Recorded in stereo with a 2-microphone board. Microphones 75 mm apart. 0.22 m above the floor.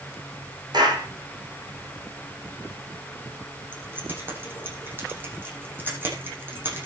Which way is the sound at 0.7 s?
60° right (ahead or behind).